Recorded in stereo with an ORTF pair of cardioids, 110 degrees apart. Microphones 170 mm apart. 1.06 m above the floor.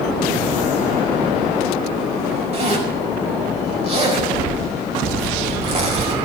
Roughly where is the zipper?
Ahead right.